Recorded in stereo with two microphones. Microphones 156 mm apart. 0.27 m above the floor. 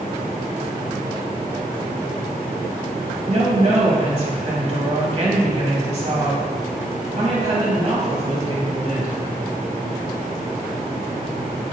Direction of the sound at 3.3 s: 45° right (ahead or behind).